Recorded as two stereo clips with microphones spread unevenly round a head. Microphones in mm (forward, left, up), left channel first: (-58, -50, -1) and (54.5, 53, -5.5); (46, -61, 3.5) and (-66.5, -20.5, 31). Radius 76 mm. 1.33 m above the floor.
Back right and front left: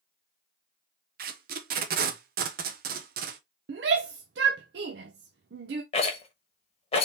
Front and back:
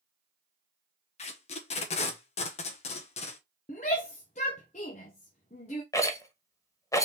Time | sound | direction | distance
1.2 | tape being pulled | 15° left | 0.6 m
3.7 | a shout | 30° left | 0.5 m
5.9 | a rattle | 85° right | 1.0 m